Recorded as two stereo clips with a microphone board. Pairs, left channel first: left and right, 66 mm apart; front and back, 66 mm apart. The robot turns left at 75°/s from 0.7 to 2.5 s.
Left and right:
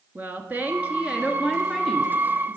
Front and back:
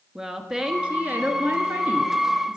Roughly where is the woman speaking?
Right.